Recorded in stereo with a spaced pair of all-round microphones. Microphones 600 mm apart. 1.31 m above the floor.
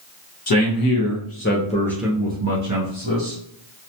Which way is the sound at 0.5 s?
40° left (ahead or behind).